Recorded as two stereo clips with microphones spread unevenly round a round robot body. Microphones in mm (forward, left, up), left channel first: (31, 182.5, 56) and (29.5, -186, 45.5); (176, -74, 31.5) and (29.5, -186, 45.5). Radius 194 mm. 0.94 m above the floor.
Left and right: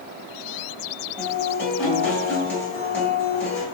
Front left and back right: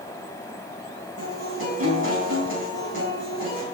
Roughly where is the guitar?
Behind.